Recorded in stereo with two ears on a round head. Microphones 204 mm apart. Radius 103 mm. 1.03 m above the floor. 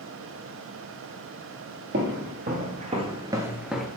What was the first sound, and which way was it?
Footsteps, 50° right (ahead or behind).